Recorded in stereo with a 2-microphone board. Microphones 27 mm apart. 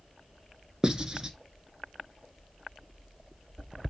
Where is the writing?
25° right (ahead or behind), 1.1 m.